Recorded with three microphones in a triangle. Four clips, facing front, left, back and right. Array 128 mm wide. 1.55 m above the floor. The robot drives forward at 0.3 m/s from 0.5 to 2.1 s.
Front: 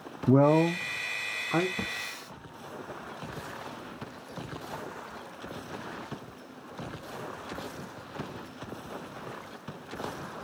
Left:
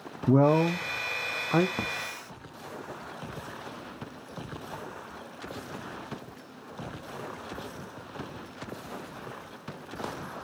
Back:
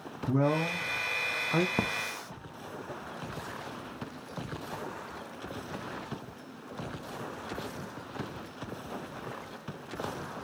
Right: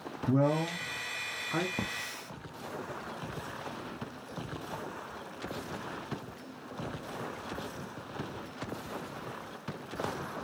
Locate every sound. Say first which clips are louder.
0.3 s a man speaking: left 7 dB, front 7 dB; 45° left, 0.6 m; by 1.7 s 85° left, 0.5 m
1.8 s a hiss: left 3 dB, back 5 dB; straight behind, 0.9 m